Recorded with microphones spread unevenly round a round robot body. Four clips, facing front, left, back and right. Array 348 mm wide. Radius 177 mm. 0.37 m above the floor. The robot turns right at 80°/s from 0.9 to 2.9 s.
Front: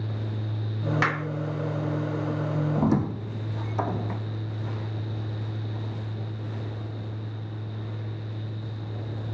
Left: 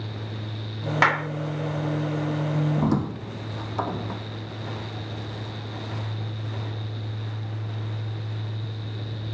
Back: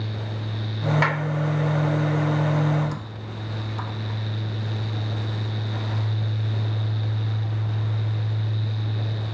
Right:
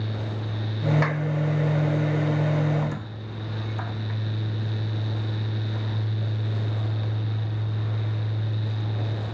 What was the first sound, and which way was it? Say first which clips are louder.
A clap: left 5 dB, back 1 dB; 60° left.